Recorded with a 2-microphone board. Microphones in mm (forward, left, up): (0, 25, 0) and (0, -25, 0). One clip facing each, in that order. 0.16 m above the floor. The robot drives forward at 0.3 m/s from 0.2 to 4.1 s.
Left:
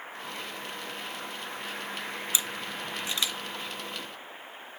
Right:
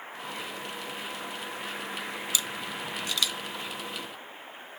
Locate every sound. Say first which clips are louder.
2.3 s a camera shutter: right 1 dB; 25° left (ahead or behind), 0.8 m